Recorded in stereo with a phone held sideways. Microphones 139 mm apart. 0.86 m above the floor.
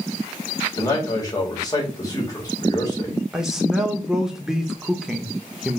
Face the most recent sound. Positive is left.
turn(degrees=-5)  # may be behind; listen again after turning